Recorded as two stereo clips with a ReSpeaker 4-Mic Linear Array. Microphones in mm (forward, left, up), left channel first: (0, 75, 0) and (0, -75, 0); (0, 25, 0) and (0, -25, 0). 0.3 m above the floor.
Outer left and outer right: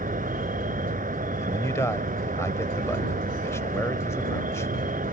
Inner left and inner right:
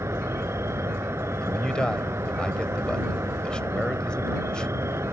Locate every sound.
0.0 s an insect: 70° right (ahead or behind)
1.4 s a man speaking: 20° left (ahead or behind)